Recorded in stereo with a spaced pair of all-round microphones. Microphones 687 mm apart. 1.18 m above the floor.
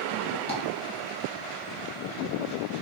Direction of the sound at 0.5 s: 10° left (ahead or behind).